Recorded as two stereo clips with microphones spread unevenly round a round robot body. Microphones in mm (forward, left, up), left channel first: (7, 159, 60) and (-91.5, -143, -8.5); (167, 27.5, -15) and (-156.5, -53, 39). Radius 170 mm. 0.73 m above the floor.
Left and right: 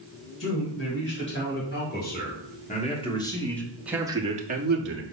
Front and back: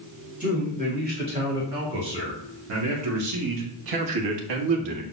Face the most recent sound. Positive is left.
turn(degrees=-135)